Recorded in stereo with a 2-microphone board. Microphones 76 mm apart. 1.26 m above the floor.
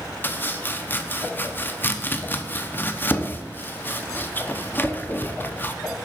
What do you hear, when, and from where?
0.2 s chopping: 25° left (ahead or behind), 0.7 m